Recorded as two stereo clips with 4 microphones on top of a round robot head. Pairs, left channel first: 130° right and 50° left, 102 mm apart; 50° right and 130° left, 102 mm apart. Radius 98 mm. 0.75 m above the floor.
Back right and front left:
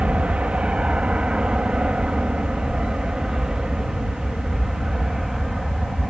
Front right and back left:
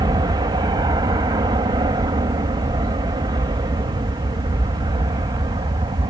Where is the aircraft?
125° left; by 6.1 s 135° left.